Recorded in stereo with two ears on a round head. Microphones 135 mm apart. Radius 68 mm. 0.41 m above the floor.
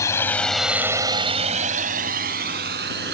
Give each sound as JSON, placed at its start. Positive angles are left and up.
{"t": 0.0, "sound": "a drone", "side_deg": 20}